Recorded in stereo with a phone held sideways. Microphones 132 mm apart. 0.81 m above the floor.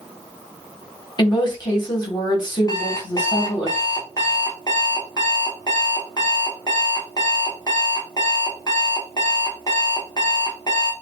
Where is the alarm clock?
30° left (ahead or behind), 0.8 m.